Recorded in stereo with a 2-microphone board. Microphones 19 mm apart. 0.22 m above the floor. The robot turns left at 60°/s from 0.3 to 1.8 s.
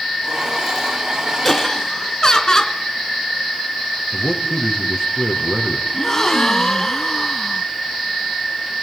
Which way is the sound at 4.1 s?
45° left (ahead or behind).